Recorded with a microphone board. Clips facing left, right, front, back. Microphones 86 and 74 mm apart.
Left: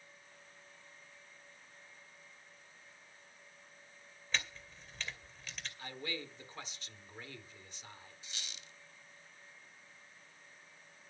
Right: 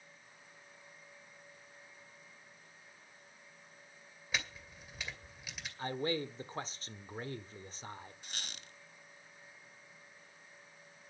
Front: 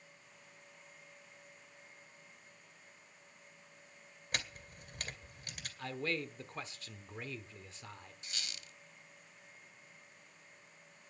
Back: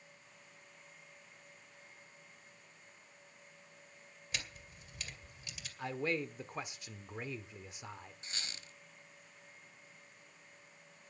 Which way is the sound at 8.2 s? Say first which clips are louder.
Right 3 dB, even; 125° right.